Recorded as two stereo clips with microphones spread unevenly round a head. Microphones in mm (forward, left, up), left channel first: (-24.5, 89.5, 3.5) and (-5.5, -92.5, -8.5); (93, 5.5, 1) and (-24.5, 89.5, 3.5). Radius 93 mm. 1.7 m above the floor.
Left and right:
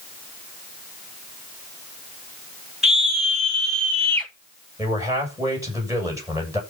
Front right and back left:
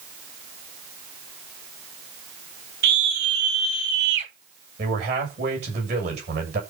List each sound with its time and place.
2.8 s a scream: 175° right, 5 m; by 4.3 s 175° left, 5 m
4.8 s a man speaking: 160° right, 8 m